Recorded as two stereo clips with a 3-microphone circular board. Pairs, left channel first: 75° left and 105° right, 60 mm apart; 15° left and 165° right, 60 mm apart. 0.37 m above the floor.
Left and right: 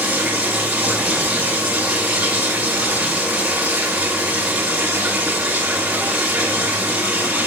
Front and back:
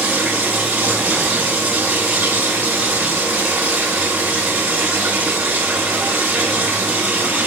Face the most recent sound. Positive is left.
turn(degrees=-145)